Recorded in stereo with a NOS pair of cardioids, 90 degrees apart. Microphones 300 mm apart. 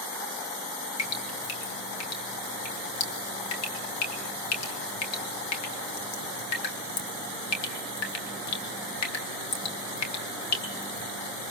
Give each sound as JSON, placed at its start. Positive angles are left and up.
{"t": 1.0, "sound": "dripping", "azimuth_deg": 60, "distance_m": 2.5}